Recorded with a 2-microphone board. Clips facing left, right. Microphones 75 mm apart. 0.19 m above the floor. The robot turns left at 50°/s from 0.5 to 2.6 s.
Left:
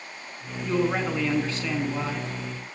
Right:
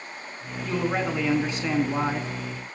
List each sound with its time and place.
0.6 s a man speaking: 20° left, 2 m; by 2.3 s 65° right, 2 m